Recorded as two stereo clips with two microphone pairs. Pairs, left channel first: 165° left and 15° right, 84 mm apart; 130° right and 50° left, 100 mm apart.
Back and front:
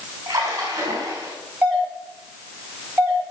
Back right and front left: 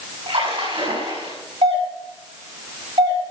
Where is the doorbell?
60° left, 5 m.